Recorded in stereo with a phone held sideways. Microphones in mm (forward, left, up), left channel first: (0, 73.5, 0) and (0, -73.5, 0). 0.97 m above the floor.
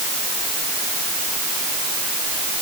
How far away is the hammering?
I don't hear hammering.